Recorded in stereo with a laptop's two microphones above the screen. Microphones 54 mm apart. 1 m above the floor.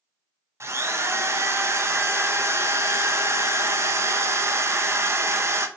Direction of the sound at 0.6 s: 60° right (ahead or behind).